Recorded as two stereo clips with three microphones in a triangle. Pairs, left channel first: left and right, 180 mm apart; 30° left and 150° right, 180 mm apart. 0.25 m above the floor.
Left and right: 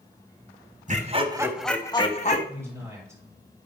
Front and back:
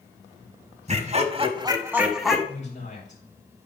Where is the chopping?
No chopping in this recording.